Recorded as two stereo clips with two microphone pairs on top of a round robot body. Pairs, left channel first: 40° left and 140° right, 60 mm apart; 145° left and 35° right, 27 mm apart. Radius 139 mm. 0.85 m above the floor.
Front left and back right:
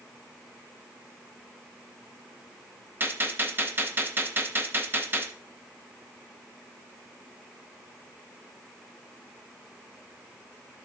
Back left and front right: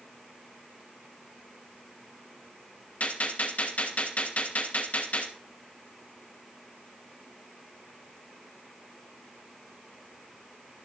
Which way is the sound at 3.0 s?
175° left.